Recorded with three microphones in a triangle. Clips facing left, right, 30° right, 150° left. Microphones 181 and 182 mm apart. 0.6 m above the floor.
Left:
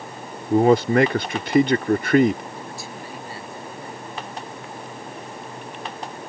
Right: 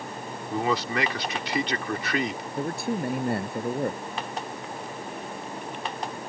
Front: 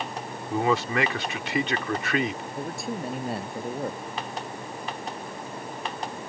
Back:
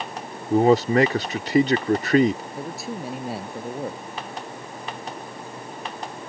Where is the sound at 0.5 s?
110° left.